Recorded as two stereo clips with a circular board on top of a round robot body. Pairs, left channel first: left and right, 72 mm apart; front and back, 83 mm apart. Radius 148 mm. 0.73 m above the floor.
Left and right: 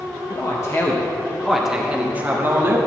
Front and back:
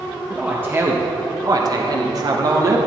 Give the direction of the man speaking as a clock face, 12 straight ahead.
8 o'clock.